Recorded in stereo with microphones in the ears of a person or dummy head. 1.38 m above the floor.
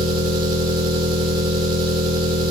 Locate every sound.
0.0 s an engine running: 20° right (ahead or behind), 2 m